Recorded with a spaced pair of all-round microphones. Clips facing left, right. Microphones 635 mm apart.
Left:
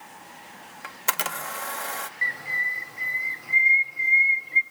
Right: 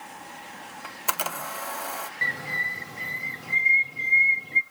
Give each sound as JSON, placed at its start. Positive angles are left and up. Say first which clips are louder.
{"t": 0.8, "sound": "a camera shutter", "louder": "even", "side_deg": 50, "distance_m": 0.5}
{"t": 2.2, "sound": "a bird", "louder": "right 4 dB", "side_deg": -60, "distance_m": 0.6}